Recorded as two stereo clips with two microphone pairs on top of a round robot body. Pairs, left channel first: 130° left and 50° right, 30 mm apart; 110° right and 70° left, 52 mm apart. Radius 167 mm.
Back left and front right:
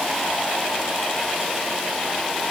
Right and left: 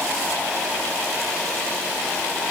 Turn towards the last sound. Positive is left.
No sound to turn to.